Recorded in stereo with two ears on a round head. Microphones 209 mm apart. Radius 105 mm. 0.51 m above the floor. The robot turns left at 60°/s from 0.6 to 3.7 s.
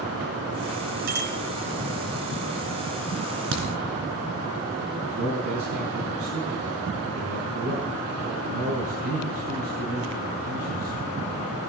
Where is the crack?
75° right (ahead or behind), 3 m; by 3.7 s 65° right (ahead or behind), 3 m.